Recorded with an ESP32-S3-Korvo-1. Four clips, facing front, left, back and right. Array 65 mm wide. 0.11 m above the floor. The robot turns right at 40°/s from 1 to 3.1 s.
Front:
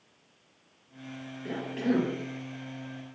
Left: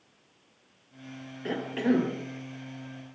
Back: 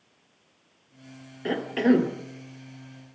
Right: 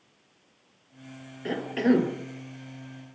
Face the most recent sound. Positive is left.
turn(degrees=-110)